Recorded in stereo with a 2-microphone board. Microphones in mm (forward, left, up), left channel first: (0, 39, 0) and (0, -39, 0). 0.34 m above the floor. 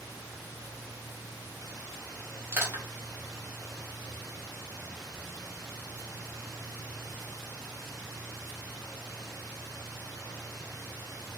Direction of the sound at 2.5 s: 35° right (ahead or behind).